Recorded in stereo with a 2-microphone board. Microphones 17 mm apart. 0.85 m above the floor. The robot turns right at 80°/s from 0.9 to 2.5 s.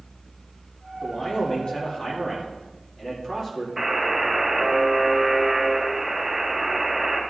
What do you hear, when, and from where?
1.0 s a man speaking: 35° left, 2.0 m; by 3.7 s 155° left, 2.0 m
3.8 s a buzzer: 10° right (ahead or behind), 2 m